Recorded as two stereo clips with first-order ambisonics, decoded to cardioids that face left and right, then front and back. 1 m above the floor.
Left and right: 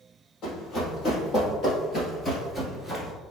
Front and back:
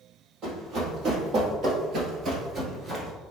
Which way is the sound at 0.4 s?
135° left.